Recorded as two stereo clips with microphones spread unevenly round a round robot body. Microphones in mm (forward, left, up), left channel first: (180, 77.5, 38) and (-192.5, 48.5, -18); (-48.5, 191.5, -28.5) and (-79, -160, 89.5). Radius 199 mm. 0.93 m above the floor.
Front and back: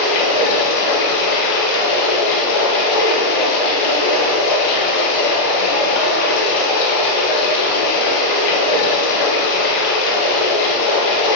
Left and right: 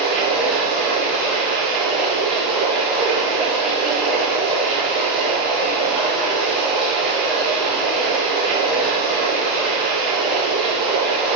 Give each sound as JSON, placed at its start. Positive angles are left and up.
{"t": 0.0, "sound": "running water", "azimuth_deg": 0, "distance_m": 1.6}